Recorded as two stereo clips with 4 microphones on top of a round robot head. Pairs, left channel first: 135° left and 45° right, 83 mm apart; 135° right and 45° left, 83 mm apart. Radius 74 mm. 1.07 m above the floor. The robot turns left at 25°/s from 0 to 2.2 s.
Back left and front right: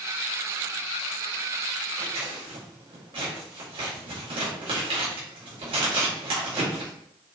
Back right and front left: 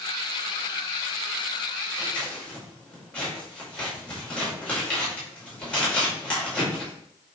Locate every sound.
2.0 s scissors: 55° right, 5 m; by 6.9 s 60° right, 5 m